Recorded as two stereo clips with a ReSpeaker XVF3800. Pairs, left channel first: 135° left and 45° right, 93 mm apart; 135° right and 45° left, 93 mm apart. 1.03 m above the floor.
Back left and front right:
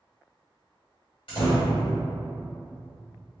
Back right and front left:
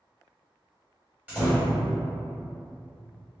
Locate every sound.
1.3 s a door slam: 115° left, 1.6 m